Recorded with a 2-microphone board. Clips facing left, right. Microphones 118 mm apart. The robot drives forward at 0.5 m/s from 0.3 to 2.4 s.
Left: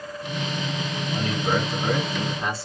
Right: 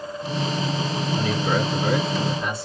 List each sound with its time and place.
1.1 s a man speaking: 40° left (ahead or behind), 1.9 m; by 2.7 s 35° left (ahead or behind), 2 m